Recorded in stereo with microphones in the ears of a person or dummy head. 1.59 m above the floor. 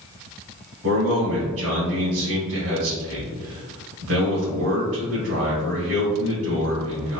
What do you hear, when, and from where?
0.8 s a man speaking: 70° right (ahead or behind), 1.2 m